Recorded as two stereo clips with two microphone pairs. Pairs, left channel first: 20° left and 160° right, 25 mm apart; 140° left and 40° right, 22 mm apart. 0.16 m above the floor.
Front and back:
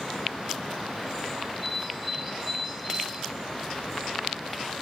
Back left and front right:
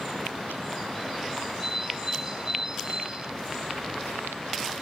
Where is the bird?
85° right, 1.3 m.